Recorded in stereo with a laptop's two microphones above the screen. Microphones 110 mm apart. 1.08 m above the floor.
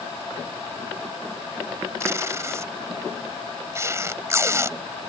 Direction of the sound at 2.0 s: 25° right (ahead or behind).